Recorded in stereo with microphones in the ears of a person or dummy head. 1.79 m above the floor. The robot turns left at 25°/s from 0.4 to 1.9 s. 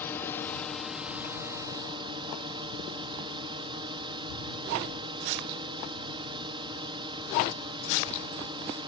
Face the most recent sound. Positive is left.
turn(degrees=-30)